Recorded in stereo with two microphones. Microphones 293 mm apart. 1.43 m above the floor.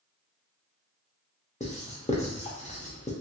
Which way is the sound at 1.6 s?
25° left (ahead or behind).